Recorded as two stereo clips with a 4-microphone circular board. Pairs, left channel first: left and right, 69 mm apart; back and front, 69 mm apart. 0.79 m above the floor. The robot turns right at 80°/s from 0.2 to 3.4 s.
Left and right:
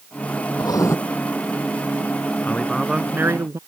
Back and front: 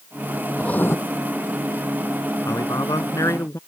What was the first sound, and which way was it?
Writing, 105° left.